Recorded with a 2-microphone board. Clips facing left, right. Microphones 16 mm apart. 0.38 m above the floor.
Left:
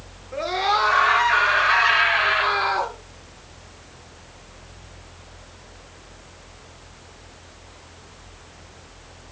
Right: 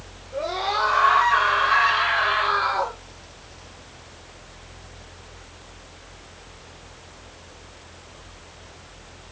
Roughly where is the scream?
Left.